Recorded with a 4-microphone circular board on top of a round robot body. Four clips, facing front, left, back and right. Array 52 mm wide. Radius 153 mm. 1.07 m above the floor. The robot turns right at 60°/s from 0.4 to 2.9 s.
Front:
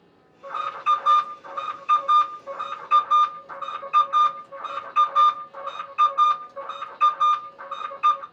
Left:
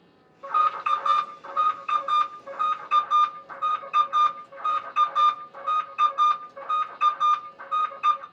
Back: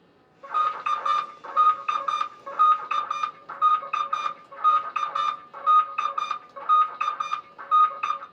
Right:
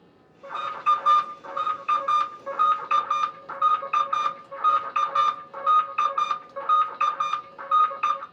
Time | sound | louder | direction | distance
0.4 | an alarm | left 2 dB, even | 105° left | 1.4 m